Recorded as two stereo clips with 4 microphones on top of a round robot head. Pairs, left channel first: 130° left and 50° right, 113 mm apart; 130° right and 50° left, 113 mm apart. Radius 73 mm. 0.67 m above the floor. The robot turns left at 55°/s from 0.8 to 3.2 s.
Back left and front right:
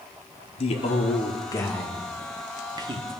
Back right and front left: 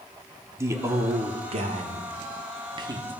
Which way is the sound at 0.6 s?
110° left.